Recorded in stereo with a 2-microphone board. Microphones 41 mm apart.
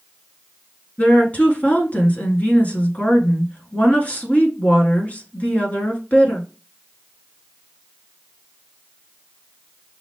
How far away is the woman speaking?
About 1.6 m.